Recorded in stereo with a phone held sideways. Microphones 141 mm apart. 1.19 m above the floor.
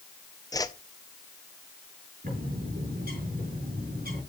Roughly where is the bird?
Right.